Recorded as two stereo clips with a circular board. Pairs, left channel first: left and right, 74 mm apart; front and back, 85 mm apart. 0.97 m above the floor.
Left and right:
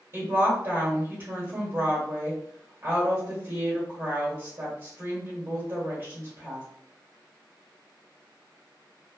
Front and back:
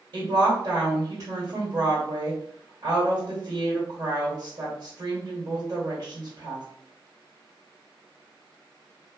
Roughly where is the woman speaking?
Behind right.